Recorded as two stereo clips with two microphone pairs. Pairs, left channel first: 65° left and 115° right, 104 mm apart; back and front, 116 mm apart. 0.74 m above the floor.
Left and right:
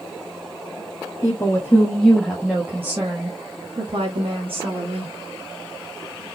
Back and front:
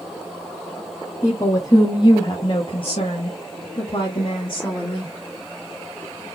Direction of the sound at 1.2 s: 125° left.